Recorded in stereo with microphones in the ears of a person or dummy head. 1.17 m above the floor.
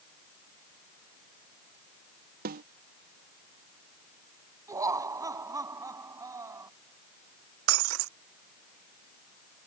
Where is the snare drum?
55° right (ahead or behind).